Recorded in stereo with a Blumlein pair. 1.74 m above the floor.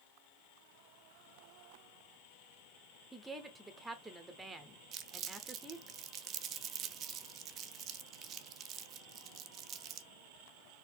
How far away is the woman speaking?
About 1.0 m.